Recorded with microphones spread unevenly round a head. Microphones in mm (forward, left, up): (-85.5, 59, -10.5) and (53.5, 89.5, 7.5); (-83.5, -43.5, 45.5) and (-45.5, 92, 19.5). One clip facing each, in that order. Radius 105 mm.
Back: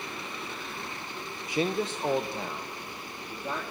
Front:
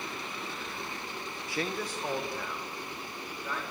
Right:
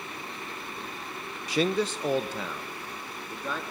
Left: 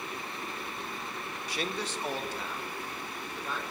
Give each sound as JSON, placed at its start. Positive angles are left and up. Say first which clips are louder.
{"t": 1.5, "sound": "a man speaking", "louder": "back 6 dB, right 10 dB", "azimuth_deg": -90, "distance_m": 0.5}